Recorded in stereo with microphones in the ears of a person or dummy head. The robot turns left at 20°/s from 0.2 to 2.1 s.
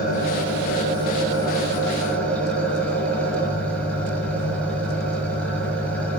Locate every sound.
0.0 s an engine running: 35° left, 7.5 m; by 6.2 s straight ahead, 7.5 m